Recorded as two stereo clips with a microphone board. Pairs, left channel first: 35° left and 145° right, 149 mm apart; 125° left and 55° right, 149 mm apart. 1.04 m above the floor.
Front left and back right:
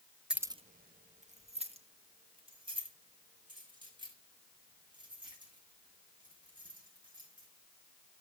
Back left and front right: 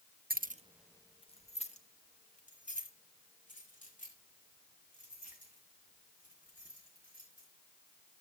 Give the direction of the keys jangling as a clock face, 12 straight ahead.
2 o'clock.